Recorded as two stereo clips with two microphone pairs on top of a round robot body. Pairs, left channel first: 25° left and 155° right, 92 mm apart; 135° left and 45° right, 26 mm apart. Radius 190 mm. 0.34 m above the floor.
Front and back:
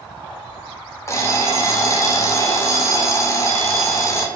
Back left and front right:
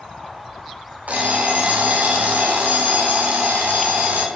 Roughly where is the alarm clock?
Ahead.